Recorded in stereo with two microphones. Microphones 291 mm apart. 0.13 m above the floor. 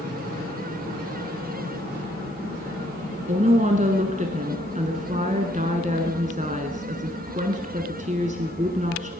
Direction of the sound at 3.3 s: 25° right (ahead or behind).